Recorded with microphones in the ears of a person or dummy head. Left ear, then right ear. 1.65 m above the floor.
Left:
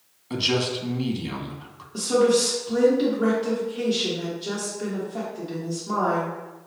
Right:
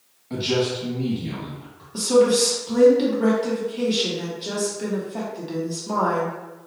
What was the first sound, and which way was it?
A man speaking, 40° left (ahead or behind).